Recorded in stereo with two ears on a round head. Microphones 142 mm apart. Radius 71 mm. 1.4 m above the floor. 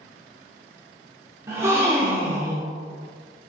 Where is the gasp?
15° right (ahead or behind), 0.9 m.